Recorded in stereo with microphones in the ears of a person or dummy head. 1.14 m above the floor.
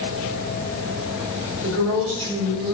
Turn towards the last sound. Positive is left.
turn(degrees=-85)